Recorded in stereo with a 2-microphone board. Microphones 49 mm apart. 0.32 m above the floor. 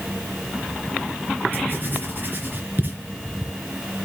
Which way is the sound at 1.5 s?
45° right (ahead or behind).